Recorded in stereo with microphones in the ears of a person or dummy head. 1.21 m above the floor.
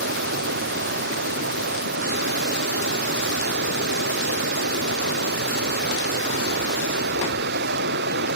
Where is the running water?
50° right (ahead or behind).